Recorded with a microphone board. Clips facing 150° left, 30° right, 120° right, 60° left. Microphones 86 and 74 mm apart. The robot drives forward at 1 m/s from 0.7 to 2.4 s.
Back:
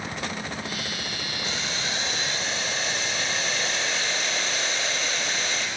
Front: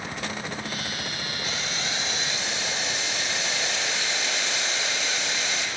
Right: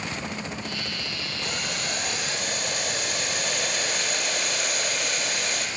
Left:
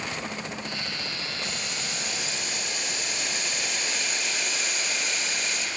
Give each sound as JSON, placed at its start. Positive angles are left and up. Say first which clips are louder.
{"t": 1.4, "sound": "boiling", "louder": "back 1 dB, right 3 dB", "azimuth_deg": -150, "distance_m": 3.5}